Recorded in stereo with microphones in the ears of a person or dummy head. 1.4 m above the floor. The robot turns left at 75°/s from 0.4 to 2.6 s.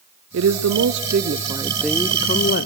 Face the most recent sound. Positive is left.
turn(degrees=120)